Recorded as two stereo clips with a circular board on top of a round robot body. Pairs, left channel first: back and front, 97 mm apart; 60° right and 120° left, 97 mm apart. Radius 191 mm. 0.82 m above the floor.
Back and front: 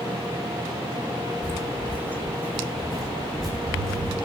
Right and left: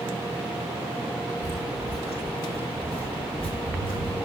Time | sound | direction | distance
1.4 | footsteps | 40° right | 1.1 m